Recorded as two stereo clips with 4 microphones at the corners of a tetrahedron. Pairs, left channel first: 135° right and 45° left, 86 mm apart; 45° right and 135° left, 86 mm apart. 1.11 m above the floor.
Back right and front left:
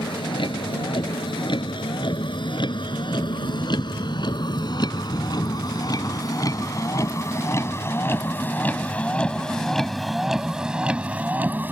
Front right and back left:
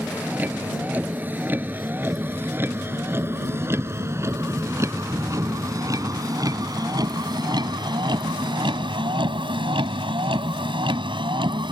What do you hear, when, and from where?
0.0 s a vehicle: 155° right; by 11.7 s 110° left